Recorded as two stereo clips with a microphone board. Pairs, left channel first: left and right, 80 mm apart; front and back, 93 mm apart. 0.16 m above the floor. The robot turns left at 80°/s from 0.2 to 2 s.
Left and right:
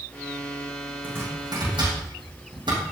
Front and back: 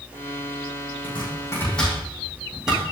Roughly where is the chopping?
Ahead.